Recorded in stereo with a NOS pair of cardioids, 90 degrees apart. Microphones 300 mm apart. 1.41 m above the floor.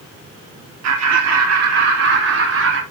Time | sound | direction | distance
0.8 | laughter | 55° right | 3 m